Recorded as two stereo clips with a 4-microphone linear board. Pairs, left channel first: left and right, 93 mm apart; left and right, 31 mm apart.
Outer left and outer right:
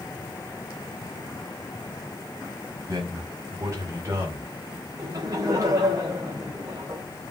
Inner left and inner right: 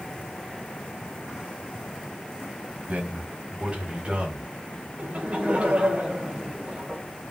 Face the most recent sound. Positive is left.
turn(degrees=-40)  # may be behind; listen again after turning